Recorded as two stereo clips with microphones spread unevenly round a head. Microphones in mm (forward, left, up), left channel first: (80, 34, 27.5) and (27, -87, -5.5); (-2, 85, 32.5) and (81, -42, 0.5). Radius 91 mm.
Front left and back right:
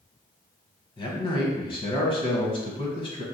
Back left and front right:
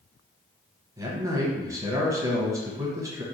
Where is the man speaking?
10° left, 1.0 m.